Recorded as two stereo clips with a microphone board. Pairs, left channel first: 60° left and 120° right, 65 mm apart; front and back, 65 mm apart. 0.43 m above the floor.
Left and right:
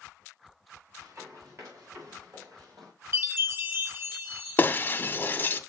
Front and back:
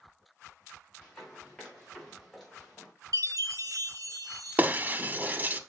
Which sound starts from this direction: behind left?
Breaking glass, at 4.6 s.